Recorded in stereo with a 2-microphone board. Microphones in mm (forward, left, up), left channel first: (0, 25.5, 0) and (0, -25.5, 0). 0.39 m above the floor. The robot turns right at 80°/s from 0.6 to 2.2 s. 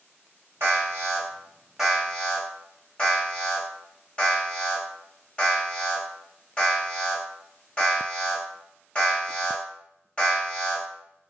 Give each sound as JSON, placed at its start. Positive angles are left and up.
{"t": 0.6, "sound": "an alarm", "side_deg": -60, "distance_m": 1.4}